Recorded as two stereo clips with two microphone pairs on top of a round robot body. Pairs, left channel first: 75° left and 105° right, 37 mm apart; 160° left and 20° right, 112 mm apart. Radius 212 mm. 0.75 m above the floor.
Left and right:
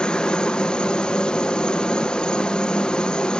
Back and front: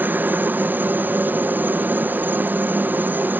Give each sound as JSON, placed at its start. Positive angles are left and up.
{"t": 0.0, "sound": "a helicopter", "azimuth_deg": 35}